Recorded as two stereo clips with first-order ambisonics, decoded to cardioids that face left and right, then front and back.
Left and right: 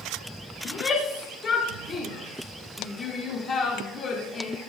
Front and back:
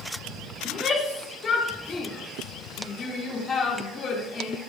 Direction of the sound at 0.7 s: 50° left.